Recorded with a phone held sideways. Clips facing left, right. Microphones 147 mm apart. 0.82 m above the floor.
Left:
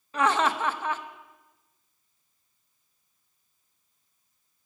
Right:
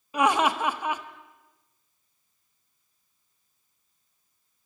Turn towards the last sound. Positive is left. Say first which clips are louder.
# right 2 dB
turn(degrees=-15)  # may be behind; listen again after turning